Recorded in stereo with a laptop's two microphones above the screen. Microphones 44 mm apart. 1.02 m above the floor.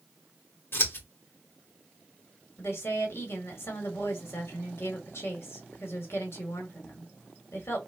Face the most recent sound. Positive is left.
turn(degrees=70)  # may be behind; listen again after turning